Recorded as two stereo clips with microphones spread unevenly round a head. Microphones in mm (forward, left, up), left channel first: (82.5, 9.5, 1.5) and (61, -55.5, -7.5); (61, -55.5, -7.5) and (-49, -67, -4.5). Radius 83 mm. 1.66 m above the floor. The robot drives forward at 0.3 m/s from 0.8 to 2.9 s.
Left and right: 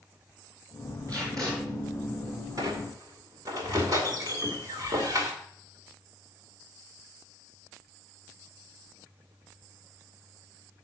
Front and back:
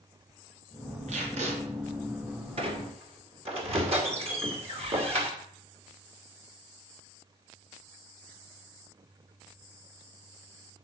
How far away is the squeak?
About 2 m.